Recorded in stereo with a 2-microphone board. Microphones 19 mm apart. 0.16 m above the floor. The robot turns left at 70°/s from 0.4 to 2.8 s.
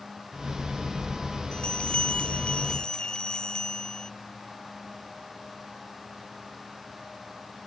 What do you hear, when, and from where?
1.5 s a bell: 130° left; by 4.1 s 40° left